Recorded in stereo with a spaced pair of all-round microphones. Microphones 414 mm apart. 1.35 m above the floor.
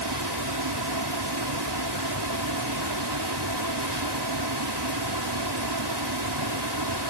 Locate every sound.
0.0 s a fan: 70° right (ahead or behind)